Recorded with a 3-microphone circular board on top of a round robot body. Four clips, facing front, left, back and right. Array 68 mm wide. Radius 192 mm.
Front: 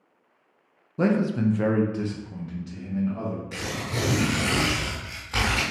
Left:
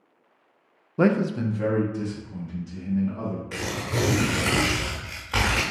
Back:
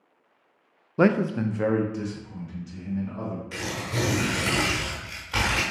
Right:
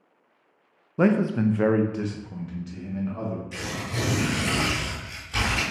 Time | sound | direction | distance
1.0 | a man speaking | straight behind | 0.6 m
3.5 | tearing paper | 85° left | 0.7 m